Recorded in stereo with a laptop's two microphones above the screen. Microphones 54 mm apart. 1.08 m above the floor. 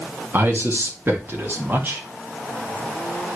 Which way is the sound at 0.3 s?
45° right (ahead or behind).